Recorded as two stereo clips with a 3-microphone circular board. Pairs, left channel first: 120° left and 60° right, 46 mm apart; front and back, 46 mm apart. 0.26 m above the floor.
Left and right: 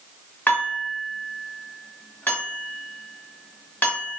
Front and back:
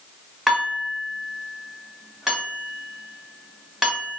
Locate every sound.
0.5 s dishes clattering: 105° left, 1.0 m